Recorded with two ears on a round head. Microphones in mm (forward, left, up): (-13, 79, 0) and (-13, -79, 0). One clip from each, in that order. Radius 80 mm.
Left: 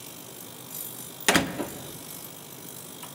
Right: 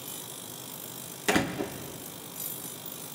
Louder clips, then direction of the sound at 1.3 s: Left 4 dB; 45° left (ahead or behind).